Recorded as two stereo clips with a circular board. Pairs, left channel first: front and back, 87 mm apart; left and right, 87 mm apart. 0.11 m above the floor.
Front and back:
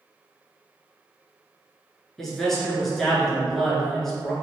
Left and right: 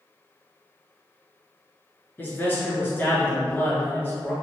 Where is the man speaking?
80° left, 1.1 m.